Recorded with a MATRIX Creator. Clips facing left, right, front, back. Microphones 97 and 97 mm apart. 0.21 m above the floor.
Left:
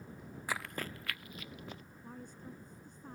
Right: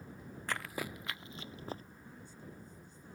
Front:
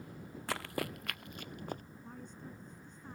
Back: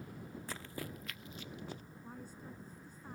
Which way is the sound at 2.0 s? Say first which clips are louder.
Left 7 dB, even; 100° left.